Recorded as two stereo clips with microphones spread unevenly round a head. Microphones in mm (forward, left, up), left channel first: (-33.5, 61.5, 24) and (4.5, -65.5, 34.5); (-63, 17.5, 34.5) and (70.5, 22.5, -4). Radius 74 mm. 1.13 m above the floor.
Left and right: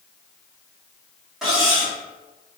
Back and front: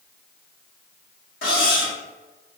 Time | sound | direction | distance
1.4 | cutlery clinking | 160° right | 1.6 m